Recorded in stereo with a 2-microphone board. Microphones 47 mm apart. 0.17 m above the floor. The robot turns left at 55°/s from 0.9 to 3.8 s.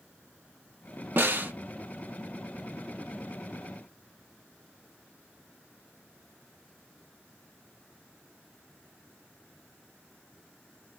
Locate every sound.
1.2 s a snare drum: 50° right (ahead or behind), 0.5 m; by 1.5 s 40° right (ahead or behind), 0.5 m